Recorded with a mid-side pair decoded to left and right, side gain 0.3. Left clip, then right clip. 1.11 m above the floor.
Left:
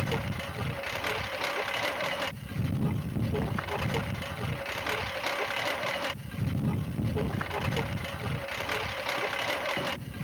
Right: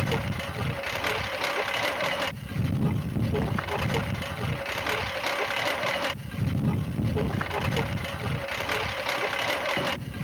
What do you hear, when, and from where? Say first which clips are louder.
0.0 s a lawn mower: right 3 dB; 40° right